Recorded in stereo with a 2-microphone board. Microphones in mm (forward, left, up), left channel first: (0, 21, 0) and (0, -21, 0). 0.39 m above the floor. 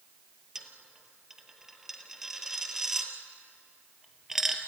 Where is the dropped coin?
10° right (ahead or behind), 2.0 m.